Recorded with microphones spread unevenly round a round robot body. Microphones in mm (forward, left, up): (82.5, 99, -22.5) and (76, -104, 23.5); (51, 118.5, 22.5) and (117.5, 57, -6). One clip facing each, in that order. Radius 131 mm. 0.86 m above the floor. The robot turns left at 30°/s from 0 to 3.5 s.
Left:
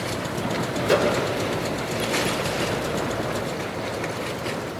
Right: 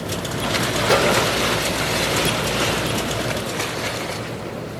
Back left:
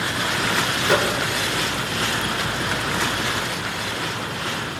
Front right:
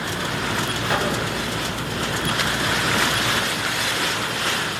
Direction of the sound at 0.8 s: 170° left.